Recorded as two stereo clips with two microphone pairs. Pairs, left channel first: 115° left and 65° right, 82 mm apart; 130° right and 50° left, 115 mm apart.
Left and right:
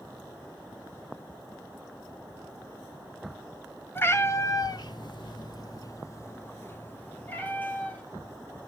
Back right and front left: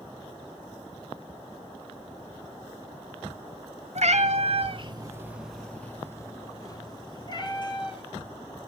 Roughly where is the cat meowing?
Ahead left.